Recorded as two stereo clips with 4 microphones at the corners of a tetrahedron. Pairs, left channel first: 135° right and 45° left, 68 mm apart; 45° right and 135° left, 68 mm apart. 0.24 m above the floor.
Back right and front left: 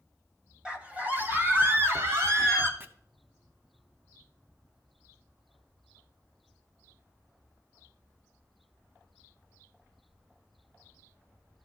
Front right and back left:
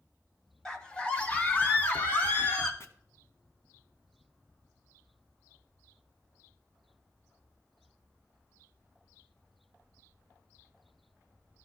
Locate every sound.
0.7 s a scream: 10° left, 1.1 m
2.8 s chopping: 10° right, 0.8 m